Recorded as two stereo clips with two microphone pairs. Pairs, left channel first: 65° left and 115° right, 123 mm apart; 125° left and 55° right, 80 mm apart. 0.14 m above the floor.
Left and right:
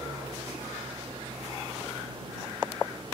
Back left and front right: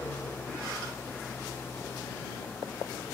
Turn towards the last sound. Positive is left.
turn(degrees=-170)